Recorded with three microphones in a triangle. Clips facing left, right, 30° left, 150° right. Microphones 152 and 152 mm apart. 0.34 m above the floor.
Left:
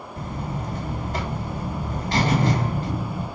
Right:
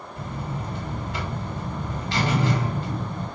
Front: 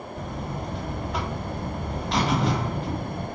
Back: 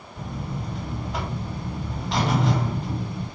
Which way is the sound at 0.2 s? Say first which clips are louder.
Left 2 dB, back 1 dB; 120° left.